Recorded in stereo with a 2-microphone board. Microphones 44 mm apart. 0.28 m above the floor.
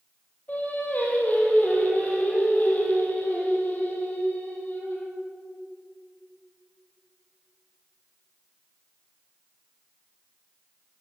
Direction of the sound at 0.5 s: 40° left (ahead or behind).